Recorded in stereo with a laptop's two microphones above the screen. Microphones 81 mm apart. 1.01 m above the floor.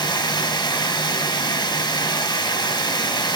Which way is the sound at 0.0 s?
60° left (ahead or behind).